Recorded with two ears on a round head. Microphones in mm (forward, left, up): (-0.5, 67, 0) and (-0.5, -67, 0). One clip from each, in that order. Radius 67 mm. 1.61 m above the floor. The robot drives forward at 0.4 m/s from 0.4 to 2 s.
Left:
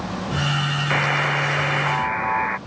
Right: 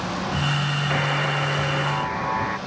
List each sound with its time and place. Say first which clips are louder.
0.9 s a buzzer: left 4 dB; 75° left (ahead or behind); by 2.6 s 50° left (ahead or behind)